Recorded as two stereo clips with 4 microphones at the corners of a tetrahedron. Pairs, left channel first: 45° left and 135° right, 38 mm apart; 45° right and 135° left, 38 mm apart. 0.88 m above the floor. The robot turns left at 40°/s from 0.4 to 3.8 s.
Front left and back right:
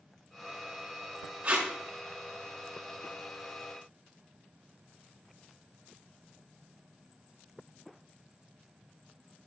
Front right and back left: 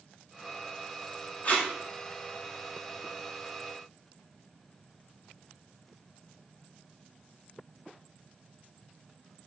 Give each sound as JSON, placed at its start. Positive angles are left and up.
{"t": 1.4, "sound": "tape being pulled", "azimuth_deg": -90, "distance_m": 1.7}